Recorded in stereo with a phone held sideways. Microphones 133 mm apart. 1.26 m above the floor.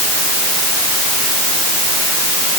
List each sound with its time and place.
Only background noise.